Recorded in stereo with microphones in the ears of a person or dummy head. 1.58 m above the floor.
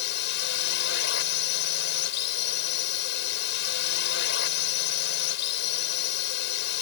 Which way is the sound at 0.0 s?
65° left (ahead or behind).